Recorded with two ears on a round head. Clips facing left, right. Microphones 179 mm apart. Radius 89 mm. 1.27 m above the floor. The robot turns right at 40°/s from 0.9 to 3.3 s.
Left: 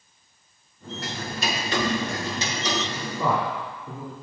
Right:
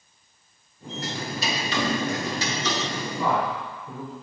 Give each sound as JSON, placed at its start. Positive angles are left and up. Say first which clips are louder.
{"t": 1.0, "sound": "ticking", "louder": "even", "azimuth_deg": 95, "distance_m": 0.7}
{"t": 3.2, "sound": "a man speaking", "louder": "even", "side_deg": 70, "distance_m": 1.9}